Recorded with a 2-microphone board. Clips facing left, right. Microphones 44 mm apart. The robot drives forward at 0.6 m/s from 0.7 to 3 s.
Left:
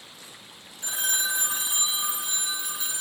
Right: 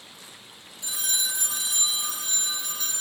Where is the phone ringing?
45° left (ahead or behind), 0.7 m; by 3.0 s 20° left (ahead or behind), 1.5 m.